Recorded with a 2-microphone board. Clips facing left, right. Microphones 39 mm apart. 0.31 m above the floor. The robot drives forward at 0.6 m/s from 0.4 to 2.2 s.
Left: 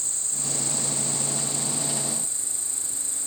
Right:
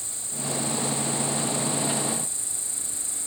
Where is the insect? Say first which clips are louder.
Right 1 dB; 60° left (ahead or behind); by 3.3 s 45° left (ahead or behind).